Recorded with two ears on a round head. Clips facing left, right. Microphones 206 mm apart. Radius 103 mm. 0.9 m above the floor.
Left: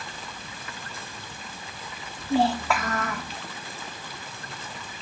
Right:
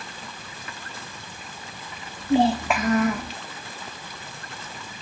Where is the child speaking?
15° right (ahead or behind), 0.7 m.